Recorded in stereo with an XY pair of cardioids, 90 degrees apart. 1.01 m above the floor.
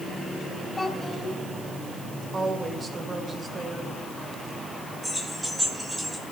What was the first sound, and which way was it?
A child speaking, 25° left.